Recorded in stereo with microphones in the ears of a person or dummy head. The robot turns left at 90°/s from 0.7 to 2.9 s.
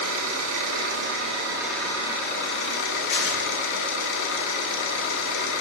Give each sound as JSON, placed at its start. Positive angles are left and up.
{"t": 0.0, "sound": "an engine running", "azimuth_deg": -85, "distance_m": 1.7}
{"t": 3.1, "sound": "tearing paper", "side_deg": 70, "distance_m": 3.5}